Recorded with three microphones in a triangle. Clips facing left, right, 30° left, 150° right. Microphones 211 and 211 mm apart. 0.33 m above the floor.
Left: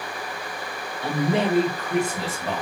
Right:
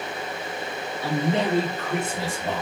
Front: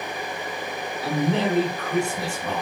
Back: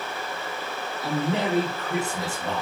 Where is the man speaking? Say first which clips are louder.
Left 1 dB, front 3 dB; 140° left, 1.3 m; by 2.6 s 130° right, 1.3 m.